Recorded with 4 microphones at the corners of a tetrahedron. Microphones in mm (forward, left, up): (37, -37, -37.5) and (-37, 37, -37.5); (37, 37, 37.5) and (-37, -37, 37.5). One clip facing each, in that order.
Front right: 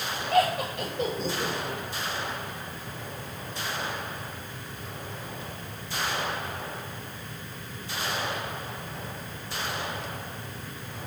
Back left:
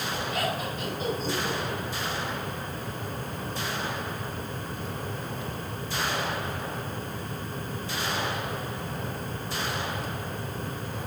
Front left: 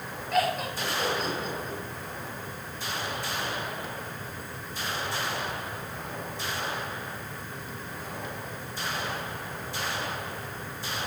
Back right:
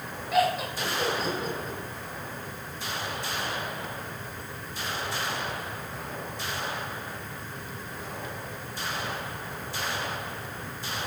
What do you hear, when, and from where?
0.3 s laughter: 50° right, 6.5 m